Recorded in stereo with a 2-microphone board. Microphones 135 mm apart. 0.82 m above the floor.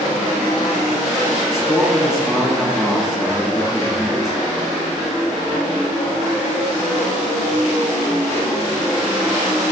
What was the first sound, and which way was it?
A man speaking, centre (ahead or behind).